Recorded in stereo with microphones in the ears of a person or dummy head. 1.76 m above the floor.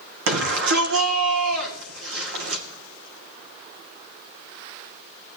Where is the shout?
80° right, 2.5 m.